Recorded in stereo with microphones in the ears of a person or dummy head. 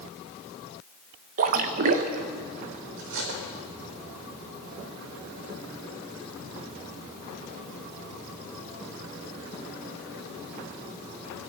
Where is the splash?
45° right (ahead or behind), 1.3 m.